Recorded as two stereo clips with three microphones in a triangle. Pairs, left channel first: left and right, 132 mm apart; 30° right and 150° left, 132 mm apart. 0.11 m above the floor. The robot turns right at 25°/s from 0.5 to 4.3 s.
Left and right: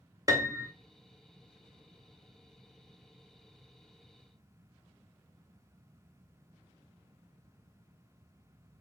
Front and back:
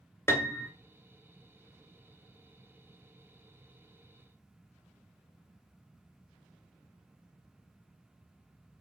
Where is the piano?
75° right, 0.6 m; by 0.7 s 70° right, 0.6 m.